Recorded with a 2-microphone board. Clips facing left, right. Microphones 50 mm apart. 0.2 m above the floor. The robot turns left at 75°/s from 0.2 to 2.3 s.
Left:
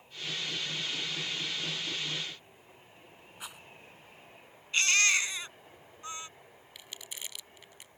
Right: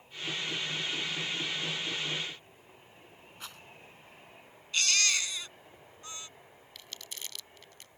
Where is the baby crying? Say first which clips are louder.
Left 3 dB; 30° left (ahead or behind).